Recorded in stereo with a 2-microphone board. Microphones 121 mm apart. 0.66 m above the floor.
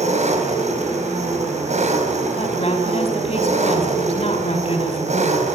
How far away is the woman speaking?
About 5 m.